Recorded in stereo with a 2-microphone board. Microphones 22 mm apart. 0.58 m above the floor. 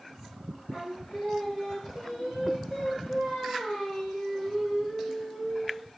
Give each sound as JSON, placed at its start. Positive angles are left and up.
{"t": 0.7, "sound": "singing", "side_deg": 65, "distance_m": 6.0}